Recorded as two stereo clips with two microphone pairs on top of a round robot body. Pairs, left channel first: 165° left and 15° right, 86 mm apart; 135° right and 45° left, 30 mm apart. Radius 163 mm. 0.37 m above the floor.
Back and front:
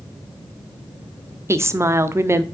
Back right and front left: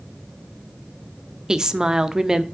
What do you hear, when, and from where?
1.5 s a woman speaking: 10° left, 1.1 m